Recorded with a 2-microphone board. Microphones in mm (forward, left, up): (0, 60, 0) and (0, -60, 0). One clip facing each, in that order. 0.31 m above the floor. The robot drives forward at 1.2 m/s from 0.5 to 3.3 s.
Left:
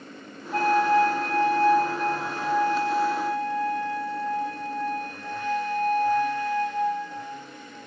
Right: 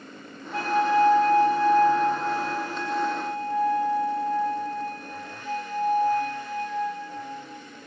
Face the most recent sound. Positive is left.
turn(degrees=75)  # may be behind; listen again after turning